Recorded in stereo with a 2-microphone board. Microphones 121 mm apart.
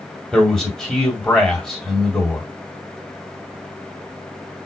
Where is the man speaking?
5° left (ahead or behind), 1.6 m.